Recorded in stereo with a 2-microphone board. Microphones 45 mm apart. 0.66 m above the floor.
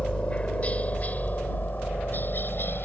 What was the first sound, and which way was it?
A helicopter, 25° left (ahead or behind).